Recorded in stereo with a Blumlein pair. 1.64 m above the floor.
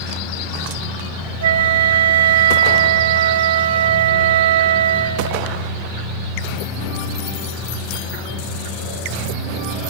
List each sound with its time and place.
0.0 s a machine running: 25° left, 9 m
1.4 s a flute: 60° right, 1.4 m